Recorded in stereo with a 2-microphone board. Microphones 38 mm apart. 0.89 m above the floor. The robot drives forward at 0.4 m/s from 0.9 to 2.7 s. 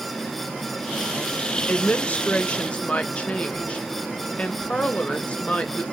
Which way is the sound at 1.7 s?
45° left (ahead or behind).